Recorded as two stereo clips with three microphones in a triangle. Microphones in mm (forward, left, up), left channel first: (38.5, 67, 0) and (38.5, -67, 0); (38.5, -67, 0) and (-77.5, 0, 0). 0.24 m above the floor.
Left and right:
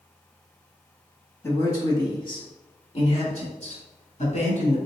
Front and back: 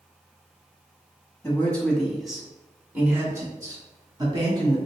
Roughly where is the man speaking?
Ahead left.